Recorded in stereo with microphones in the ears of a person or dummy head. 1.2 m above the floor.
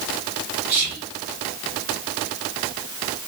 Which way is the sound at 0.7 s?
65° right (ahead or behind).